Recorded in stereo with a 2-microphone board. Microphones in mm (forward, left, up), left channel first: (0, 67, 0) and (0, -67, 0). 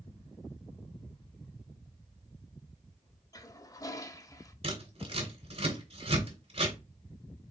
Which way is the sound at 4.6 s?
50° right (ahead or behind).